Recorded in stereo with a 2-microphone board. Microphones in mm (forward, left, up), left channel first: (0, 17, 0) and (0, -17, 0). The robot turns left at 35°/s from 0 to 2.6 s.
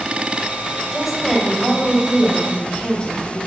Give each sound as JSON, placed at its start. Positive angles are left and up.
{"t": 0.9, "sound": "a woman speaking", "azimuth_deg": -170, "distance_m": 1.7}